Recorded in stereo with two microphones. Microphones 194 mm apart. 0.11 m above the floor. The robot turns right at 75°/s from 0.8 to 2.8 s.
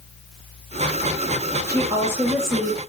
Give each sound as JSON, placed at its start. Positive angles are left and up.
{"t": 1.7, "sound": "a woman speaking", "side_deg": -20, "distance_m": 1.2}